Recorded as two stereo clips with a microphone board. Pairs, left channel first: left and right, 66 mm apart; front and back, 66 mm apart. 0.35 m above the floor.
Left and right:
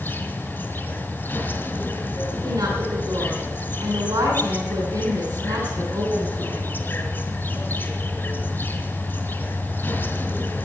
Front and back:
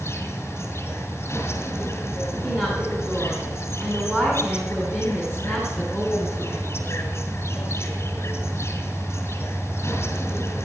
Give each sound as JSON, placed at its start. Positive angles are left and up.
{"t": 0.0, "sound": "an insect", "azimuth_deg": 40, "distance_m": 2.0}
{"t": 2.4, "sound": "a woman speaking", "azimuth_deg": -115, "distance_m": 2.5}